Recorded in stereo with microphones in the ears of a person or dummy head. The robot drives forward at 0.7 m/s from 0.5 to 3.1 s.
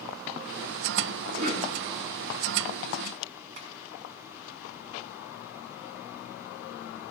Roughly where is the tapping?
Right.